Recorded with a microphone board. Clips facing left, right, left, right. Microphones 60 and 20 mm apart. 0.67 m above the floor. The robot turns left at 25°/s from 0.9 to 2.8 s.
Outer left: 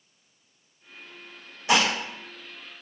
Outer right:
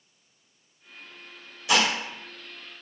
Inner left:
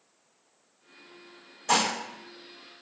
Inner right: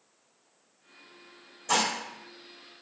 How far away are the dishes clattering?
About 1.2 m.